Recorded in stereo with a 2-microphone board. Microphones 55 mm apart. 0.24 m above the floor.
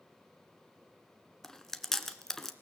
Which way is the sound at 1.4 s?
5° left (ahead or behind).